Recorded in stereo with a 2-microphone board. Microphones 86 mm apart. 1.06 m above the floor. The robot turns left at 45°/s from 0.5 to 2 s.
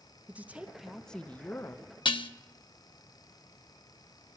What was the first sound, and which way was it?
A woman speaking, 160° right.